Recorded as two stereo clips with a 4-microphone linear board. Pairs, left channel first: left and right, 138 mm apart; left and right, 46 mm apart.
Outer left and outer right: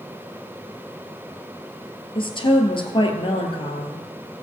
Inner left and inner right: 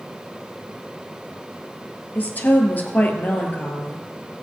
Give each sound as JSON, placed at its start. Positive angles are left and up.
{"t": 2.1, "sound": "a woman speaking", "side_deg": 40, "distance_m": 1.7}